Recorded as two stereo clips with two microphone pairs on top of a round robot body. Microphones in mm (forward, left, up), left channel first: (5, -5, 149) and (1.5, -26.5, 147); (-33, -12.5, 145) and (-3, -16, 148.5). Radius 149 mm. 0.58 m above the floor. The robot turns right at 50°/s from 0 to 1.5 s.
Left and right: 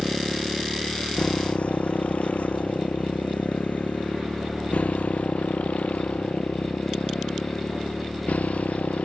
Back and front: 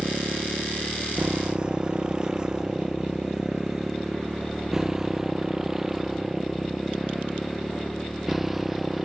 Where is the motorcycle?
30° right; by 9.1 s 75° left.